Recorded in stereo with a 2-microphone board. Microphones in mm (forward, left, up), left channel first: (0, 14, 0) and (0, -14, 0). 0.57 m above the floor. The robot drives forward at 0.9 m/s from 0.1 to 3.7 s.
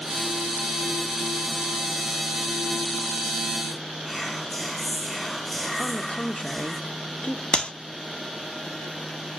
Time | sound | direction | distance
4.0 | whispering | 5° left (ahead or behind) | 3 m
5.8 | a woman speaking | 40° left (ahead or behind) | 0.9 m
7.5 | a clap | 40° left (ahead or behind) | 0.7 m